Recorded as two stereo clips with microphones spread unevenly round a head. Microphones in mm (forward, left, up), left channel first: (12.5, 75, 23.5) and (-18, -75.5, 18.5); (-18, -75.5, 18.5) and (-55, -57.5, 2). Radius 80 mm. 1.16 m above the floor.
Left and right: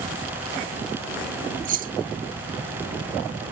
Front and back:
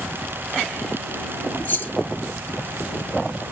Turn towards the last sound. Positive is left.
turn(degrees=-60)